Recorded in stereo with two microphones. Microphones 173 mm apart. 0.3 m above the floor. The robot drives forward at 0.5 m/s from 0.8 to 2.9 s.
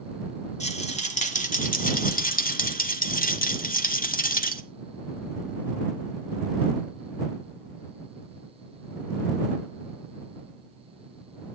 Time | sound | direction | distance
0.6 | a rattle | 45° left (ahead or behind) | 1.4 m